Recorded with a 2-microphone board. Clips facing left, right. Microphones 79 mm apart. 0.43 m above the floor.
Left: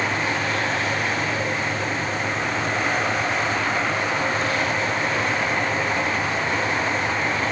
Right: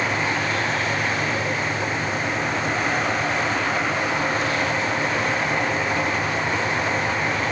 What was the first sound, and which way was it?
Only background noise.